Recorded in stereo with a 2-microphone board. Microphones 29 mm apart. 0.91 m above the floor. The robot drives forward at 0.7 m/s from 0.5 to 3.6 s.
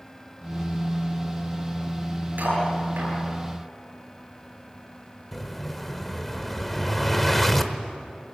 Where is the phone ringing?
I don't hear a phone ringing.